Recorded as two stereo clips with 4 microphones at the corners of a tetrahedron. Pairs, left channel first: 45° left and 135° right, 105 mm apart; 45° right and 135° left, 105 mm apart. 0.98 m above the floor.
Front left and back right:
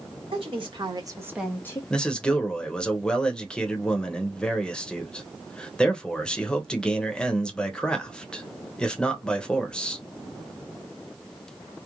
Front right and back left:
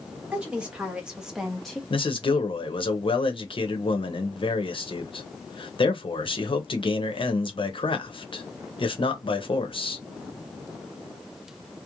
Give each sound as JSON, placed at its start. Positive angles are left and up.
{"t": 0.3, "sound": "a woman speaking", "azimuth_deg": -145, "distance_m": 1.6}
{"t": 1.9, "sound": "a man speaking", "azimuth_deg": -35, "distance_m": 0.7}